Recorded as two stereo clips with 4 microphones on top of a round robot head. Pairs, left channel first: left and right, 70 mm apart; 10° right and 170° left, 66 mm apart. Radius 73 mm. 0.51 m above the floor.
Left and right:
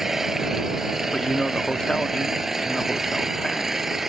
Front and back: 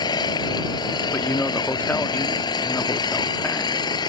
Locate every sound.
0.0 s an engine running: 5° right
1.1 s a man speaking: 15° left